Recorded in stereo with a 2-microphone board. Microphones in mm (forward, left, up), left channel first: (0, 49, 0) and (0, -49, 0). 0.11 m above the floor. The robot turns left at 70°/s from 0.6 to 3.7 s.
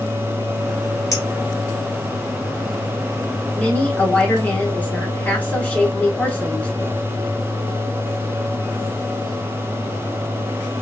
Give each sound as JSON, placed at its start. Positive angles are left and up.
{"t": 1.1, "sound": "a clink", "side_deg": 35, "distance_m": 1.0}
{"t": 3.5, "sound": "a woman speaking", "side_deg": 15, "distance_m": 1.1}